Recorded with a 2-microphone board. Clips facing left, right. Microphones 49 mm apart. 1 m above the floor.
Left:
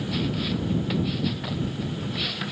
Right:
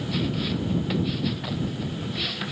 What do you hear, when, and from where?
Only background noise.